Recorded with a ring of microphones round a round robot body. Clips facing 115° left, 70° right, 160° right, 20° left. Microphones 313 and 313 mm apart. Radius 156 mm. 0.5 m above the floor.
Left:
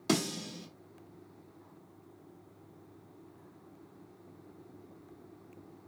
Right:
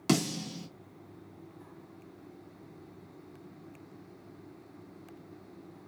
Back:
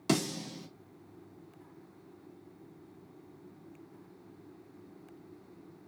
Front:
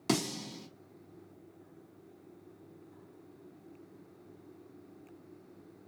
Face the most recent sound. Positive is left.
turn(degrees=-70)